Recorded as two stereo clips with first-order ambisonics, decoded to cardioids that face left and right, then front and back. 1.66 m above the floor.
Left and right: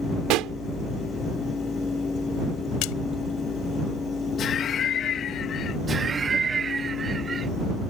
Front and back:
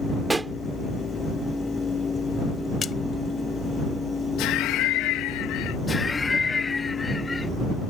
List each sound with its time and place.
0.3 s a pop: 100° right
2.8 s a splash: 70° left
4.4 s laughter: 35° left
5.9 s laughter: 50° right